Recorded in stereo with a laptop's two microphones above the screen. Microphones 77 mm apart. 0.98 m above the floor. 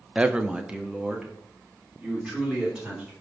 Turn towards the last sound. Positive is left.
turn(degrees=-5)  # may be behind; listen again after turning